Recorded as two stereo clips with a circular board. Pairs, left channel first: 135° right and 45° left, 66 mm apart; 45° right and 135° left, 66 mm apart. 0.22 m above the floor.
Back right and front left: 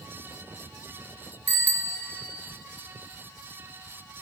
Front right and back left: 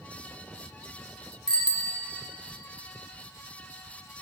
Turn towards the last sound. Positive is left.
turn(degrees=-45)